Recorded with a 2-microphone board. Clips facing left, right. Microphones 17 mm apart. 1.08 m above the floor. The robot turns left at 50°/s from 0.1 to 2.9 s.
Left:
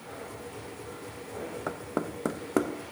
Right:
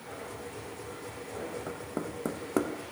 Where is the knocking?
60° left (ahead or behind), 0.6 m; by 2.7 s 10° left (ahead or behind), 0.6 m.